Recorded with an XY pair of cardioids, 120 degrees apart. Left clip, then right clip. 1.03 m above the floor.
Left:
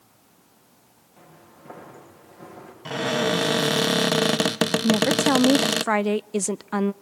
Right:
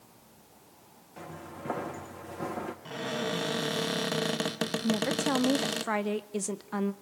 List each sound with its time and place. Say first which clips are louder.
1.2 s footsteps: right 7 dB; 50° right, 4.5 m
2.9 s a cupboard door: left 12 dB; 50° left, 0.6 m
4.8 s a woman speaking: left 8 dB; 45° left, 0.5 m